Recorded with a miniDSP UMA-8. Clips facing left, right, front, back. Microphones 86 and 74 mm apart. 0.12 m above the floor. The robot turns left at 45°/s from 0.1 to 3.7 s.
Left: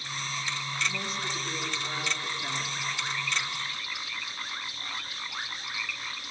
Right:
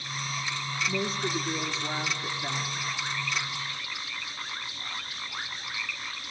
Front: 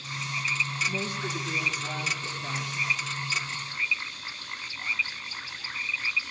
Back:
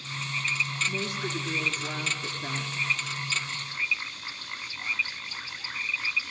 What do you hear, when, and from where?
0.9 s a woman speaking: 105° right, 1.8 m; by 2.8 s 170° left, 1.8 m